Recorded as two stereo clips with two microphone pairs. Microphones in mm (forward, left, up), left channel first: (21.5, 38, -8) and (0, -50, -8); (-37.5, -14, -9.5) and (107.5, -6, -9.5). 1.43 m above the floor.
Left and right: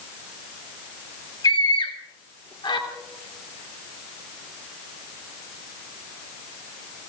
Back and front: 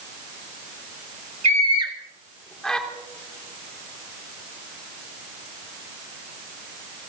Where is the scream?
35° left, 1.3 m; by 2.8 s 100° left, 2 m.